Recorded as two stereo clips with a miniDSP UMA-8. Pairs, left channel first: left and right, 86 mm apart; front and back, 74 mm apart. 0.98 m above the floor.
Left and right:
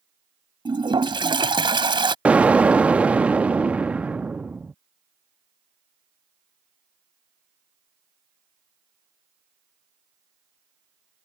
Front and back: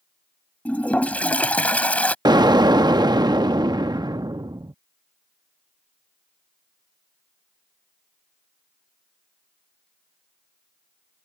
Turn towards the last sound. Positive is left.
turn(degrees=-165)